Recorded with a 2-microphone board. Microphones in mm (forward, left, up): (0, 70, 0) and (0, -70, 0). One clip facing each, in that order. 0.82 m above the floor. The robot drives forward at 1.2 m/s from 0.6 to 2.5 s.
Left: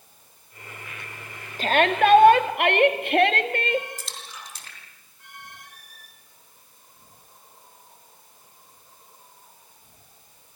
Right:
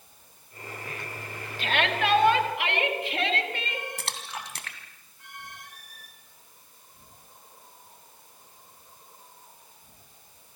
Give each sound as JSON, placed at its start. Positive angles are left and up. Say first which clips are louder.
{"t": 1.6, "sound": "a shout", "louder": "left 7 dB", "side_deg": 40, "distance_m": 2.0}
{"t": 4.0, "sound": "a splash", "louder": "right 4 dB", "side_deg": -65, "distance_m": 2.5}